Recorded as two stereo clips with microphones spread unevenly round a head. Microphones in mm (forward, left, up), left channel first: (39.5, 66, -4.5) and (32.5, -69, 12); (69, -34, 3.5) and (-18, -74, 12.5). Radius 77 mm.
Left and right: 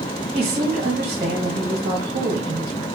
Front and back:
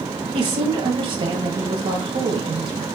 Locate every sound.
0.3 s a woman speaking: 145° right, 1.4 m